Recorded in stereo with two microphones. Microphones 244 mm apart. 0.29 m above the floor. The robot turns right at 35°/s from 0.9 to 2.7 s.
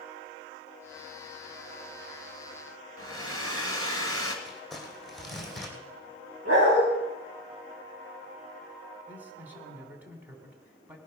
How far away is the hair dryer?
About 2.0 m.